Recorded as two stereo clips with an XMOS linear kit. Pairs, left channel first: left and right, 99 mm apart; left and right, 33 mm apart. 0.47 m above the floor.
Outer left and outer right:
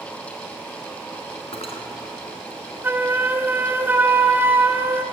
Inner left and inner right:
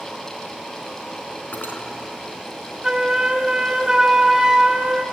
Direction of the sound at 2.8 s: 20° right (ahead or behind).